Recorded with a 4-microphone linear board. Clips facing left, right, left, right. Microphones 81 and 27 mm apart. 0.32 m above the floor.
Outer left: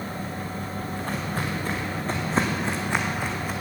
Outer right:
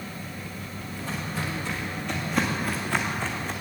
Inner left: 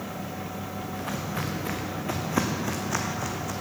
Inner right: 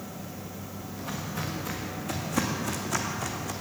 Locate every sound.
0.9 s footsteps: 55° left (ahead or behind), 2 m; by 3.5 s 5° left (ahead or behind), 1.6 m